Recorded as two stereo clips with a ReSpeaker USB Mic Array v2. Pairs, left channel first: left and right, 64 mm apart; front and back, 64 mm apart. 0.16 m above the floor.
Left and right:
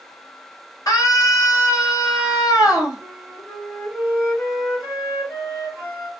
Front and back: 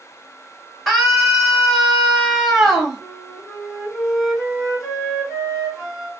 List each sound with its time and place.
0.9 s a scream: 90° left, 2 m
3.0 s a flute: 90° left, 2.5 m